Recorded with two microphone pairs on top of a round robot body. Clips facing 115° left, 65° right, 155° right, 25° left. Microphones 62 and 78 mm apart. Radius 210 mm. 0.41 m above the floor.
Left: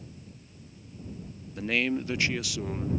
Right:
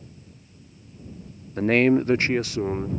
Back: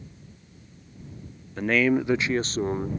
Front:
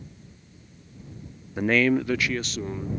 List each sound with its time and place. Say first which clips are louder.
1.6 s a man speaking: right 10 dB, front 1 dB; 55° right; by 2.9 s 120° right